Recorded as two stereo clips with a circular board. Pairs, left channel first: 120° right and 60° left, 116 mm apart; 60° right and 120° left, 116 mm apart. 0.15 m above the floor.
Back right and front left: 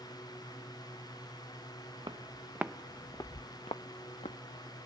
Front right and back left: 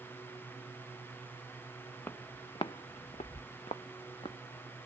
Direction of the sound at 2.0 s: 10° left.